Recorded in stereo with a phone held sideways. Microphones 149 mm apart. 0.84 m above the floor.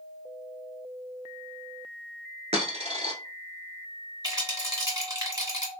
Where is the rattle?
25° right (ahead or behind), 1.3 m.